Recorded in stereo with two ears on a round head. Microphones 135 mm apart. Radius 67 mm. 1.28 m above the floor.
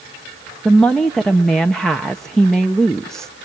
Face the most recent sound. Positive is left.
turn(degrees=5)  # may be behind; listen again after turning